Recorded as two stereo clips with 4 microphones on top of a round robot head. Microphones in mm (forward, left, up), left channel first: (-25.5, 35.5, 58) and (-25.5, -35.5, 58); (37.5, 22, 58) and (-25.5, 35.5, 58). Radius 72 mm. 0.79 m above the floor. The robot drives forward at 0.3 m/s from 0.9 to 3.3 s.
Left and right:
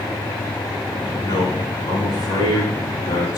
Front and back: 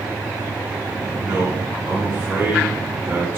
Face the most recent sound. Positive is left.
turn(degrees=100)